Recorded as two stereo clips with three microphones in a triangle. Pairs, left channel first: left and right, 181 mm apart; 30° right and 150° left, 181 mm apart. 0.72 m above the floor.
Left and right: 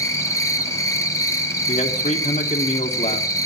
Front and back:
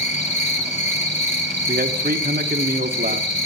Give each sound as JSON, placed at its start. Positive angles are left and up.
{"t": 0.0, "sound": "an insect", "azimuth_deg": 20, "distance_m": 1.4}
{"t": 1.7, "sound": "a man speaking", "azimuth_deg": 130, "distance_m": 1.5}